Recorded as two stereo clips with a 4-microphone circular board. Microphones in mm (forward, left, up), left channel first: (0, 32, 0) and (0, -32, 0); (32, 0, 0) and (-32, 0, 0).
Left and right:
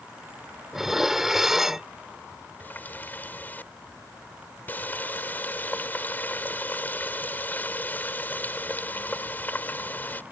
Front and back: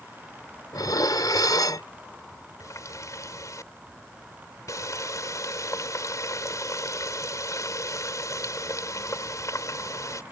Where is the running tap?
30° left.